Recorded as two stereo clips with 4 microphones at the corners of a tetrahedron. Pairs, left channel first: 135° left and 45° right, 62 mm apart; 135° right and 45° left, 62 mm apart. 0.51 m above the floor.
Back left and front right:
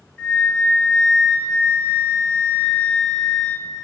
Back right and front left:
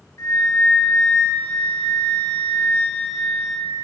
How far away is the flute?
About 2.5 m.